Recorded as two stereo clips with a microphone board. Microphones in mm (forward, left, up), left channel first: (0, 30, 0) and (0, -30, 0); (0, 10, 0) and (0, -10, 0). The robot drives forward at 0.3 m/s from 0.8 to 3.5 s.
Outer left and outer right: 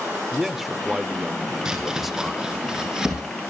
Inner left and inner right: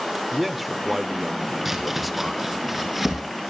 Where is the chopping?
10° right (ahead or behind), 4 m.